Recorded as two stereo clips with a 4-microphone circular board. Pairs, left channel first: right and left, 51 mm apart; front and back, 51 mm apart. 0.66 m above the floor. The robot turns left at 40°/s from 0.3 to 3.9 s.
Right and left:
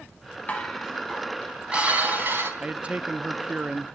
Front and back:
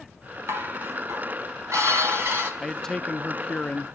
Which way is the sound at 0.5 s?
150° right.